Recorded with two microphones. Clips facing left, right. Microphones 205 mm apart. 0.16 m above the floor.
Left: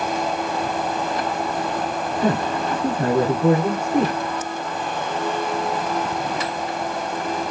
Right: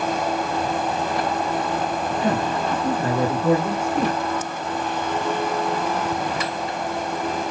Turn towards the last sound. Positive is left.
turn(degrees=60)  # may be behind; listen again after turning